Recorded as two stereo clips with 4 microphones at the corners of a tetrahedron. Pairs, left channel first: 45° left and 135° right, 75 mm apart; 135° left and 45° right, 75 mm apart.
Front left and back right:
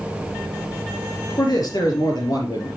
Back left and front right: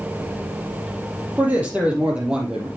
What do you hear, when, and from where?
1.4 s a man speaking: 20° left, 3.5 m; by 2.7 s 35° left, 4.5 m